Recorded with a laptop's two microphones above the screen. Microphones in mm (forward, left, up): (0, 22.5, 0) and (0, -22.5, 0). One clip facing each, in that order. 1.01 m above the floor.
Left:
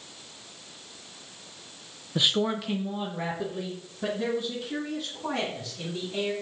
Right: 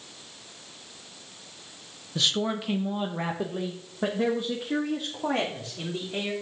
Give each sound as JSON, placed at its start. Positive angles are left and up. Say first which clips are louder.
{"t": 2.1, "sound": "a man speaking", "louder": "left 2 dB", "side_deg": 20, "distance_m": 0.7}